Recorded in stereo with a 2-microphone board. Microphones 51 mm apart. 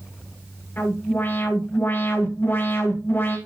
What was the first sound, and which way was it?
An alarm, 45° left (ahead or behind).